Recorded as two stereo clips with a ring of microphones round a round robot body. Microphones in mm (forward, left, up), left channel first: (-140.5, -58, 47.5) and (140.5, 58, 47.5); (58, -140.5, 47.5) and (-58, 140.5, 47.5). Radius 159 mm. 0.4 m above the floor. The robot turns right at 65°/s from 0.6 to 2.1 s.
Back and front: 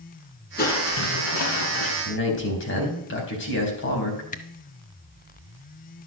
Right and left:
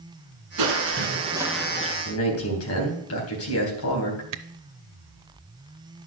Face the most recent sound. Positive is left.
turn(degrees=140)